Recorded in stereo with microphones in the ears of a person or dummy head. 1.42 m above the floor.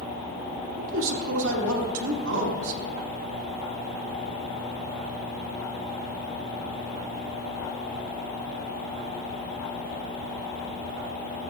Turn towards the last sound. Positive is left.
turn(degrees=-75)  # may be behind; listen again after turning